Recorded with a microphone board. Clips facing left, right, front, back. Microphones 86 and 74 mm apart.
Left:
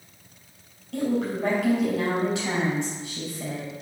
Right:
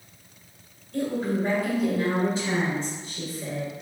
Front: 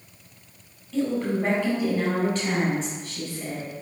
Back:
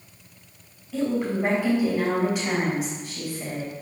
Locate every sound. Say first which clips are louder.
0.9 s a woman speaking: left 1 dB, even; 105° left, 4.5 m